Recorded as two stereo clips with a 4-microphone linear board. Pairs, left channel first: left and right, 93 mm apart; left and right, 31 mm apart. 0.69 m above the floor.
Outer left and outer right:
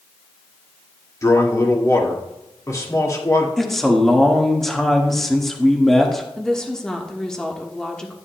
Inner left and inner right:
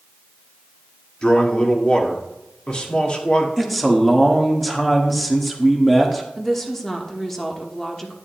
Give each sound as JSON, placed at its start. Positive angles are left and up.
{"t": 1.2, "sound": "a man speaking", "side_deg": 35, "distance_m": 1.8}
{"t": 3.6, "sound": "a man speaking", "side_deg": 0, "distance_m": 1.4}
{"t": 6.4, "sound": "a woman speaking", "side_deg": 10, "distance_m": 1.2}